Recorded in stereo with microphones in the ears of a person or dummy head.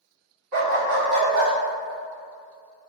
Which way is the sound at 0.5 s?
45° right (ahead or behind).